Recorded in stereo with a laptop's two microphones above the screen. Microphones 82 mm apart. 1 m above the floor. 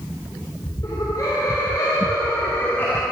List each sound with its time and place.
0.8 s laughter: 50° left (ahead or behind), 3 m; by 3.0 s 20° left (ahead or behind), 1.6 m